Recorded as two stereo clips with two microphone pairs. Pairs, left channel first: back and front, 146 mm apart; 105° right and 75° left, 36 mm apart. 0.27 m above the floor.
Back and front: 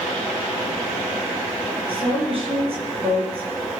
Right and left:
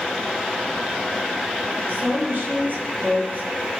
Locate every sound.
1.9 s a woman speaking: 45° left, 7 m